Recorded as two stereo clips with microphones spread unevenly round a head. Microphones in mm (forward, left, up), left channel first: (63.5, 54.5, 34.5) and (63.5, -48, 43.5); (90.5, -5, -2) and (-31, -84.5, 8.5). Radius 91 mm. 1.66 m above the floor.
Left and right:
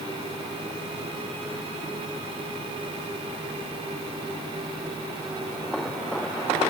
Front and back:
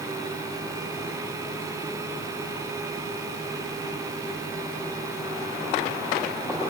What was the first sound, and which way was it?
Only background noise.